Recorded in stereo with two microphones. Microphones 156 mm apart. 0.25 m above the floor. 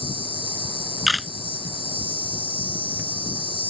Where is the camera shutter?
Centre (ahead or behind).